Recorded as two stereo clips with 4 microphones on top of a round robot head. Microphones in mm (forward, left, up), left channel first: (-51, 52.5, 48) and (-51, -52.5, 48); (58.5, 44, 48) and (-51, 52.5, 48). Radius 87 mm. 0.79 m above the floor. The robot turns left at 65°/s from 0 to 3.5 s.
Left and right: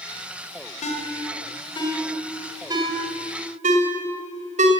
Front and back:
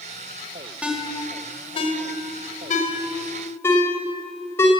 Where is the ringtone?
95° left, 2.5 m; by 4.7 s 80° right, 2.5 m.